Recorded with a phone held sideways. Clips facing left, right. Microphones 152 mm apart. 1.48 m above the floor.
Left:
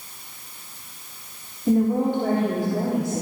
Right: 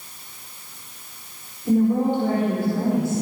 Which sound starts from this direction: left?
A woman speaking, at 1.7 s.